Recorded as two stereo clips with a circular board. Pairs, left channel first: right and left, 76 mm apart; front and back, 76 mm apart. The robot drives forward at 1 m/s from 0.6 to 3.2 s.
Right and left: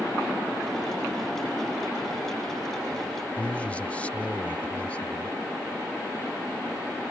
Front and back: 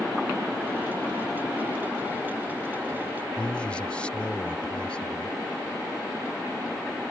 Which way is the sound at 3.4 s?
50° right.